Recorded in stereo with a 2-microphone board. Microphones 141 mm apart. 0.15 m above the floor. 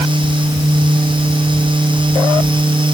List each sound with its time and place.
Only background noise.